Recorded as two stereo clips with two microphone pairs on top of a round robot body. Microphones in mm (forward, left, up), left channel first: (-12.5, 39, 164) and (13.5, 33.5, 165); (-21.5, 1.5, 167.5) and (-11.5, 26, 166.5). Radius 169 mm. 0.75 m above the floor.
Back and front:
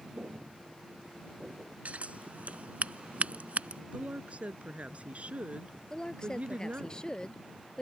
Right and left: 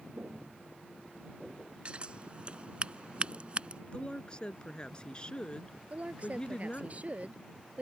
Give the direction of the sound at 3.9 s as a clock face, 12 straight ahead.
2 o'clock.